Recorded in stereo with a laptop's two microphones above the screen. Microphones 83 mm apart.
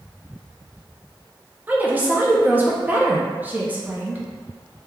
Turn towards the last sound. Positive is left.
turn(degrees=-20)  # may be behind; listen again after turning